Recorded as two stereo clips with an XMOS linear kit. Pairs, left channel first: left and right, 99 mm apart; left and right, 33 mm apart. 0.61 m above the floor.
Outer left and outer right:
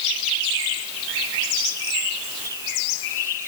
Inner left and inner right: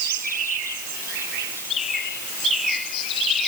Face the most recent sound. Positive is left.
No sound to turn to.